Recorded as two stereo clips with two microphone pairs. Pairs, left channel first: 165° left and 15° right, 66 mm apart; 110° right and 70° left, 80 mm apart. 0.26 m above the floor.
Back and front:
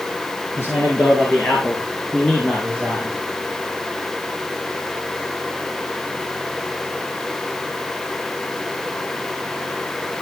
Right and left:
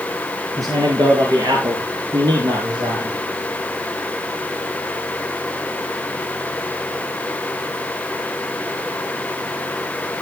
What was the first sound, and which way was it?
A man speaking, 115° left.